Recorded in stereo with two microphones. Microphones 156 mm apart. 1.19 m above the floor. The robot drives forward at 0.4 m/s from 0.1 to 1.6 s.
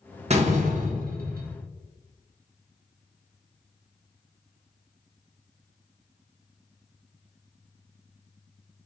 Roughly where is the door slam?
Right.